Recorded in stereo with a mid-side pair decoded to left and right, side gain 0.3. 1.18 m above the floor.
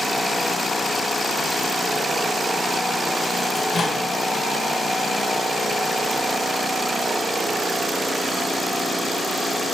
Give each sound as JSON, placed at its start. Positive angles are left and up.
{"t": 3.5, "sound": "a microwave", "azimuth_deg": 70, "distance_m": 1.1}